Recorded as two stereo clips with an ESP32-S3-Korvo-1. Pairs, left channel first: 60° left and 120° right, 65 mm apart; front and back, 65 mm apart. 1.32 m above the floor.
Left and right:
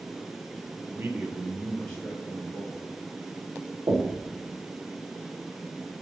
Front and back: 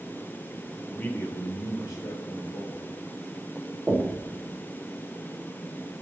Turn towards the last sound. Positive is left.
turn(degrees=-105)